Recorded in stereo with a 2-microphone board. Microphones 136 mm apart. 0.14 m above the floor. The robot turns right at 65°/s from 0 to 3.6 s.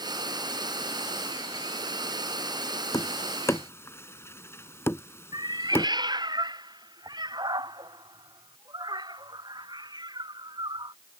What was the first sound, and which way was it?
Tapping, 25° left (ahead or behind).